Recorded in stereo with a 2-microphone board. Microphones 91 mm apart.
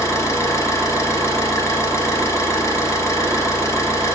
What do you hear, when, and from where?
0.0 s an engine running: 35° left (ahead or behind), 1.6 m